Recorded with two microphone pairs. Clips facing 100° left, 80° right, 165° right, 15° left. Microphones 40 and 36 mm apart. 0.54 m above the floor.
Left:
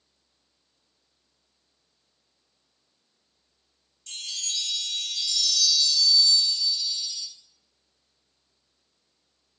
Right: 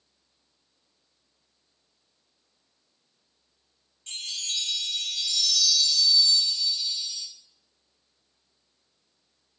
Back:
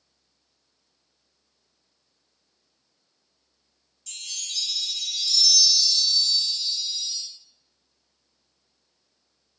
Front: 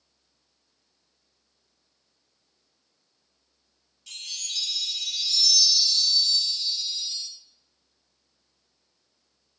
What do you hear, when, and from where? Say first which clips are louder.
4.1 s a chime: right 1 dB, even; 35° right, 1.2 m